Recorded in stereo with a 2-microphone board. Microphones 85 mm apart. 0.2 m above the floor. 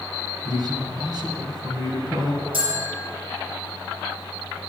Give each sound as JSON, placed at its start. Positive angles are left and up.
{"t": 0.5, "sound": "a man speaking", "side_deg": -50, "distance_m": 2.0}
{"t": 2.5, "sound": "a bell", "side_deg": -70, "distance_m": 5.0}